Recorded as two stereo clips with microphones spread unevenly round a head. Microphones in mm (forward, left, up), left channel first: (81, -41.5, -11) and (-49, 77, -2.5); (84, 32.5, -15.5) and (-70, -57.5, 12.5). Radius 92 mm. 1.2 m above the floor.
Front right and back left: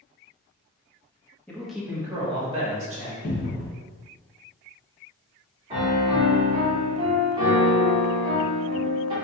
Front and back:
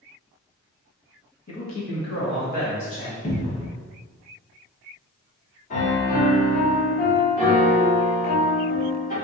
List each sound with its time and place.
1.5 s a man speaking: 40° left, 1.2 m; by 3.1 s 90° left, 1.8 m
3.2 s a cupboard door: 10° right, 0.9 m
5.7 s a piano: 75° left, 1.4 m